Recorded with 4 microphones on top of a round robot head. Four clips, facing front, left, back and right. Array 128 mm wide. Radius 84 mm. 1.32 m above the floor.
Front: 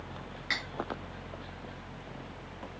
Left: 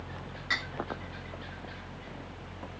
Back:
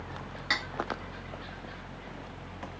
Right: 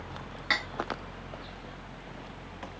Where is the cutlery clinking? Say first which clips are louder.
Right 3 dB, back 4 dB; 115° right, 1.3 m.